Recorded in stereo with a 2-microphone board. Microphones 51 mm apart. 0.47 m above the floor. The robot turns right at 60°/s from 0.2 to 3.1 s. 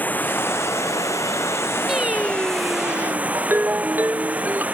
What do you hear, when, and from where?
0.0 s running water: 30° left; by 4.7 s 155° right
1.9 s singing: 175° right; by 3.2 s 100° right
3.4 s a ringtone: 35° right (ahead or behind)